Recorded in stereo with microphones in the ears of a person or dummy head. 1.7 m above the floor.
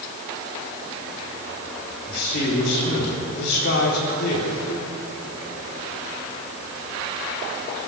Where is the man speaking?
60° left (ahead or behind), 4 m.